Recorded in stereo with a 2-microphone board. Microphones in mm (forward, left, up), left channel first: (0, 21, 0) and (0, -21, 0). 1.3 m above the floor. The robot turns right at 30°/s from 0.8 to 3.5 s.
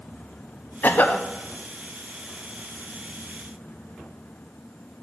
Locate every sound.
0.8 s a cough: 50° left (ahead or behind), 0.5 m; by 1.2 s 40° left (ahead or behind), 0.5 m